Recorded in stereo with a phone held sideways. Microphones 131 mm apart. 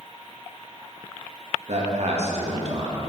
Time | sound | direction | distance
1.7 | a man speaking | 55° right (ahead or behind) | 1.7 m